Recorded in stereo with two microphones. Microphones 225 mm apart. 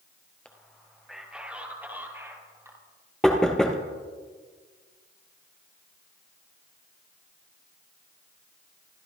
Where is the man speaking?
5° left (ahead or behind), 2 m; by 2.8 s 15° right (ahead or behind), 3.5 m.